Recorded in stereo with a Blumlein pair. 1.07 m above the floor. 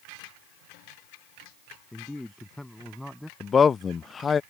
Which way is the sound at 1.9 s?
5° left.